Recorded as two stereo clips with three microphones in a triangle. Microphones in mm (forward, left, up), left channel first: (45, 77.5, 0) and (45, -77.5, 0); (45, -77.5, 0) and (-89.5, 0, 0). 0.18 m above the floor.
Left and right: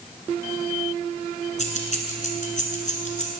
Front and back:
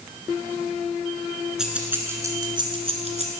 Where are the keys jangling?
65° left, 1.5 m; by 3.3 s 120° left, 1.6 m.